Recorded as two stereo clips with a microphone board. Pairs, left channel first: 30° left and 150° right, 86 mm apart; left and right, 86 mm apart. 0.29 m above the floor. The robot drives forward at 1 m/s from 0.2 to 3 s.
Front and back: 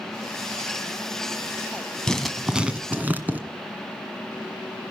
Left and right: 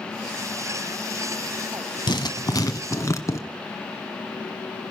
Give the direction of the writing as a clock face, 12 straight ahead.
8 o'clock.